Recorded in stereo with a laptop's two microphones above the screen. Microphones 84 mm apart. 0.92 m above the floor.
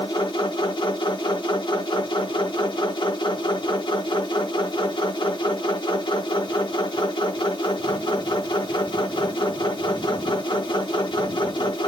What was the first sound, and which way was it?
A machine running, 70° left (ahead or behind).